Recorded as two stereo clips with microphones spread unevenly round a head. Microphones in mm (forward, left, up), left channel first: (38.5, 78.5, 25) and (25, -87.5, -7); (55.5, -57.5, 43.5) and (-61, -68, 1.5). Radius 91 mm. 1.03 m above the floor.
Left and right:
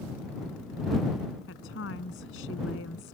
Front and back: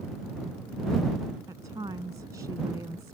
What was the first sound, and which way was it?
A woman speaking, 110° left.